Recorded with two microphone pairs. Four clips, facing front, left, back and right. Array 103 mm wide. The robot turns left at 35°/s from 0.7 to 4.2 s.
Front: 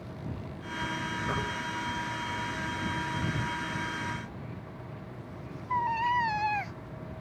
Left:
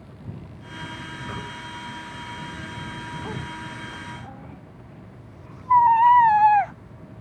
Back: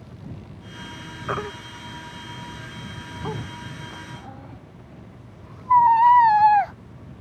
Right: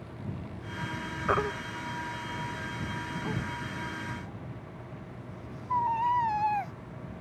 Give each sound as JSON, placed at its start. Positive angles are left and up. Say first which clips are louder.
{"t": 1.3, "sound": "a baby crying", "louder": "right 10 dB, back 8 dB", "azimuth_deg": -120}